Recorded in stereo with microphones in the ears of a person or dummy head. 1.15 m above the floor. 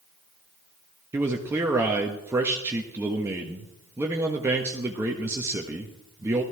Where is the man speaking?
15° right (ahead or behind), 1.3 m.